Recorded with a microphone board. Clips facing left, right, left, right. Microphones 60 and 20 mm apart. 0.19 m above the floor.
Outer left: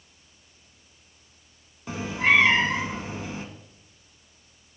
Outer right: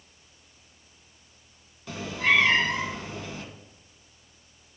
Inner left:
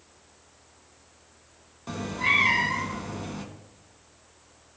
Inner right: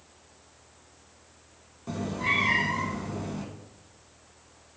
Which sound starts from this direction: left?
A cat meowing, at 1.9 s.